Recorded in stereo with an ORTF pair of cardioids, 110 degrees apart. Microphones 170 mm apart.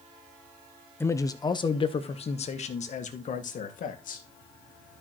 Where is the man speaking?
15° left, 1.0 m; by 4.2 s 55° left, 2.5 m.